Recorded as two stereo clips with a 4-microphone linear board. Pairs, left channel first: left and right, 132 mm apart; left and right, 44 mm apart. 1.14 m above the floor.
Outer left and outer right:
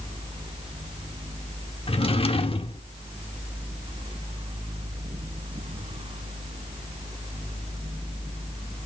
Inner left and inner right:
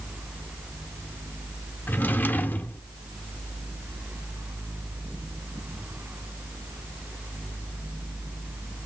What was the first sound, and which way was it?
A drawer, 45° left (ahead or behind).